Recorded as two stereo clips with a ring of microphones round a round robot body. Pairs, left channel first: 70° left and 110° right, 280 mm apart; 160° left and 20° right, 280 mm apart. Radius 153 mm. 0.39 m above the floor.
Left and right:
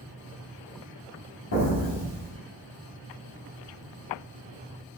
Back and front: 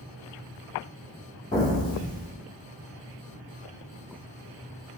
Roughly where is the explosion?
Left.